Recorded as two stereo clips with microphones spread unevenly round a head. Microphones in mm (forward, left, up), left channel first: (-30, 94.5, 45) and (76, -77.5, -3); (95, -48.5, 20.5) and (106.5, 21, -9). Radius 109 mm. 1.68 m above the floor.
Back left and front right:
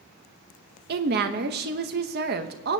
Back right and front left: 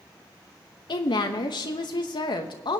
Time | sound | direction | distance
0.9 | a woman speaking | 105° right | 0.9 m